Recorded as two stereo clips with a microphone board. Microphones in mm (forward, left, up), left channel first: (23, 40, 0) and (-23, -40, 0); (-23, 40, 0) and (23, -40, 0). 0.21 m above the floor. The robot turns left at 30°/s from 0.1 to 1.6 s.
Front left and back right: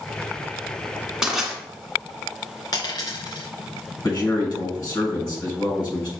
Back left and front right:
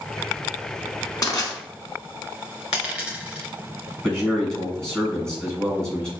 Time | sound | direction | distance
1.2 | crushing | 160° left | 1.1 m
2.7 | a dropped coin | 20° left | 1.6 m
4.0 | a man speaking | 40° left | 1.6 m